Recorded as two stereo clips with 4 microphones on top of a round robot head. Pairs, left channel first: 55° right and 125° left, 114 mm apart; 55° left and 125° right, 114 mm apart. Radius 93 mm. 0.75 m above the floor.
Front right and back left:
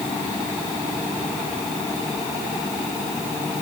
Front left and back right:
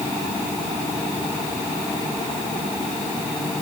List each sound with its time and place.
Only background noise.